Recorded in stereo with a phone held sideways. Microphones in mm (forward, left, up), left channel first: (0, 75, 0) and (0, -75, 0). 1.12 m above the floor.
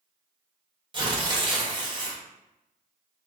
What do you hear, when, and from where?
0.9 s tearing paper: 30° right (ahead or behind), 0.8 m